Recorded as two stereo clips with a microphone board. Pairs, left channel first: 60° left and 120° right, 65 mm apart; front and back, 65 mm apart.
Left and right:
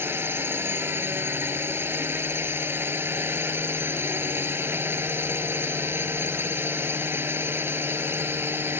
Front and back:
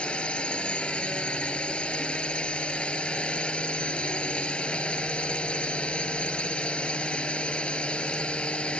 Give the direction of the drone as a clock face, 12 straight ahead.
2 o'clock.